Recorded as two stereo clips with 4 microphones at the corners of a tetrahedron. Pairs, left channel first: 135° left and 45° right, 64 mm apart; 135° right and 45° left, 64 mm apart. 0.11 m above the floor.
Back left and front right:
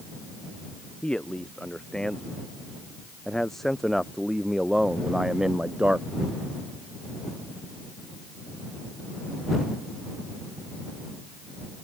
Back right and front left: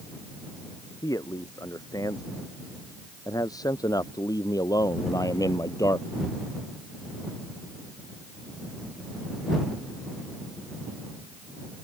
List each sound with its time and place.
1.0 s a man speaking: 150° right; by 6.4 s 110° right